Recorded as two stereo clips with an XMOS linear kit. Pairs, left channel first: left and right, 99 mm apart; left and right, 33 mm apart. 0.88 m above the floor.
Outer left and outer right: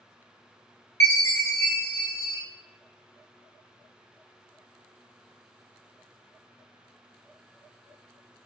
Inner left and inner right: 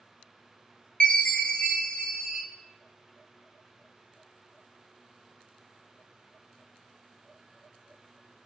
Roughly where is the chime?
Left.